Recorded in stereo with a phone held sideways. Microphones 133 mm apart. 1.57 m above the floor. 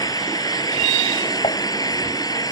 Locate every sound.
0.0 s an engine running: 30° left (ahead or behind)
1.4 s dishes clattering: 45° left (ahead or behind)